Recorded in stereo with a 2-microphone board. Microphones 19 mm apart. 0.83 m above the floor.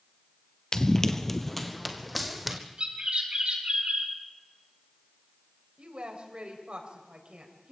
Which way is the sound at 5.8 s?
80° right.